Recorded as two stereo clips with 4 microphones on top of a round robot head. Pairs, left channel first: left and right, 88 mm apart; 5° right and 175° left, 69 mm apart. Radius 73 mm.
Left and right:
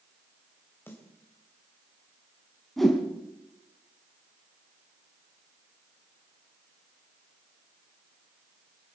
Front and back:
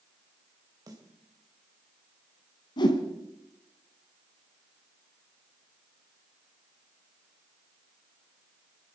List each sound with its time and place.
0.9 s a snare drum: 155° left, 3 m
2.8 s a whoosh: 5° left, 2.0 m